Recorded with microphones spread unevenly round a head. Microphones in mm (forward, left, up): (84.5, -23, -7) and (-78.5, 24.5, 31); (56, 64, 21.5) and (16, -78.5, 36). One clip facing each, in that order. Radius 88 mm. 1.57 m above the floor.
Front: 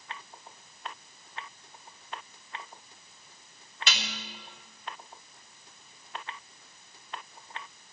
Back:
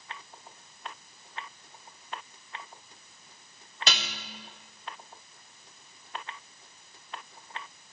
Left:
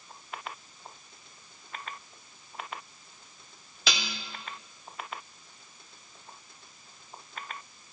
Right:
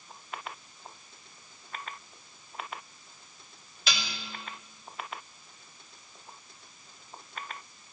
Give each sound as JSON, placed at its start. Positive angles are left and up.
{"t": 3.9, "sound": "dishes clattering", "azimuth_deg": 110, "distance_m": 3.0}